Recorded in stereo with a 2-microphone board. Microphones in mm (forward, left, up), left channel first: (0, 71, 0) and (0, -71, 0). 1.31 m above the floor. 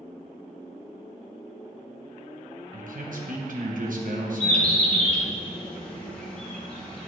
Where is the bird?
5° left (ahead or behind), 1.3 m.